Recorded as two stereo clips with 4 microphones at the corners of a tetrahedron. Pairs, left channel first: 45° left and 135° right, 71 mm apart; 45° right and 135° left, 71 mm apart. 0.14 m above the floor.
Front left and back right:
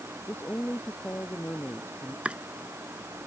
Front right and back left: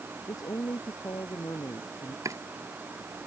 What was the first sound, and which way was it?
A woman speaking, 15° right.